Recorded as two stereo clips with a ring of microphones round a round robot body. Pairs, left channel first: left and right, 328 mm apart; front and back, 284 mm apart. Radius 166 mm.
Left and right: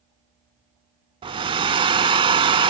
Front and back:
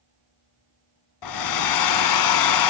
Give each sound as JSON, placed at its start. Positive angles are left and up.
{"t": 1.2, "sound": "a hair dryer", "azimuth_deg": -15, "distance_m": 0.8}